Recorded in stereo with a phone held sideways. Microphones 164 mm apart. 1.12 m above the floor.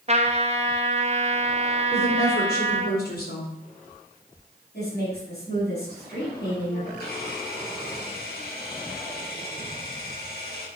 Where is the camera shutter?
75° left (ahead or behind), 6 m.